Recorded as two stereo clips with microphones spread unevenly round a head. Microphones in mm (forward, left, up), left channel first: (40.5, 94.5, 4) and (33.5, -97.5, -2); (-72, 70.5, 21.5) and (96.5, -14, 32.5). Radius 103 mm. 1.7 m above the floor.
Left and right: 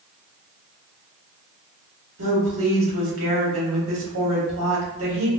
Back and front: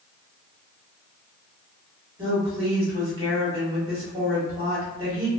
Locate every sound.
2.2 s a woman speaking: 95° right, 1.4 m